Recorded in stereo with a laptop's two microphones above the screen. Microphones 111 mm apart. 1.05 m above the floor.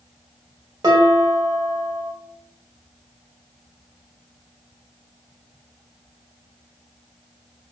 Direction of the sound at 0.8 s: 40° right (ahead or behind).